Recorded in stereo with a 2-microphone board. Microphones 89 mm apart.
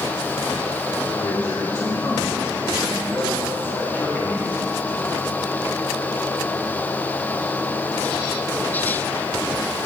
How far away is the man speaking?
About 1.6 m.